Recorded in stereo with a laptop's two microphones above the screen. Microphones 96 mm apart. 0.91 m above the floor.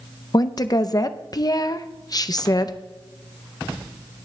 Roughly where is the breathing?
No breathing in this recording.